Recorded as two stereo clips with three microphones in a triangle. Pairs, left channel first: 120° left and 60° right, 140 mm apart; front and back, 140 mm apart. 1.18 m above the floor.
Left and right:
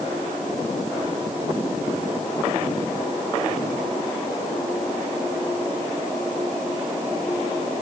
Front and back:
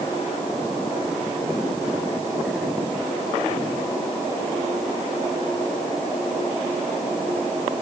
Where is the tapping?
No tapping in this recording.